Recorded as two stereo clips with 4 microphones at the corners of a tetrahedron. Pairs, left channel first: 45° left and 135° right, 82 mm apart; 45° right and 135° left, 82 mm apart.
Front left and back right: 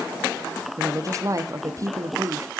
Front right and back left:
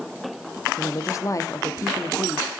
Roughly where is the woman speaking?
Right.